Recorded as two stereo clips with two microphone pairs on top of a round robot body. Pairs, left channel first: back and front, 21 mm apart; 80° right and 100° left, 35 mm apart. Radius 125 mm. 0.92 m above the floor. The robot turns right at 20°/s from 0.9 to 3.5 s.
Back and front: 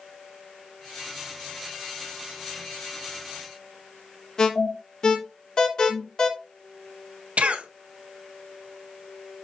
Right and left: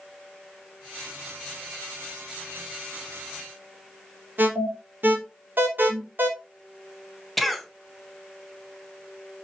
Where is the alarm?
125° left, 3 m.